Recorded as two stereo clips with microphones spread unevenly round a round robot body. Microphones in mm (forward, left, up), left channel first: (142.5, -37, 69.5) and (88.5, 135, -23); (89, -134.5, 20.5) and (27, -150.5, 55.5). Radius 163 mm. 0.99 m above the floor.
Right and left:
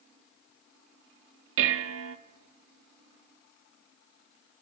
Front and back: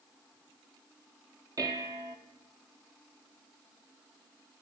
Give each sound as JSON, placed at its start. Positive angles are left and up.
{"t": 1.6, "sound": "dishes clattering", "azimuth_deg": 125, "distance_m": 0.7}